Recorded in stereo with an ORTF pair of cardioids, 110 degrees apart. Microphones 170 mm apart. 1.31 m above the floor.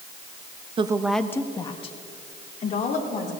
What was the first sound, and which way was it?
A woman speaking, 35° right.